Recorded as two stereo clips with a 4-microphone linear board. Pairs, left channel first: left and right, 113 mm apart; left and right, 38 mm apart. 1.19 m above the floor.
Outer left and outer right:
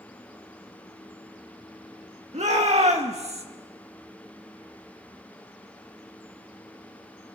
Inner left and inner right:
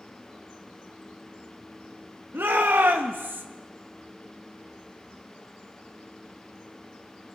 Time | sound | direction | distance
2.3 | a shout | 80° right | 2.0 m